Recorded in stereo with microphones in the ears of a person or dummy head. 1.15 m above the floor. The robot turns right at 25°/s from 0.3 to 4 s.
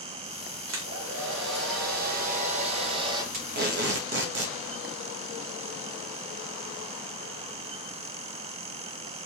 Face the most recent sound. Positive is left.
turn(degrees=-65)  # may be behind; listen again after turning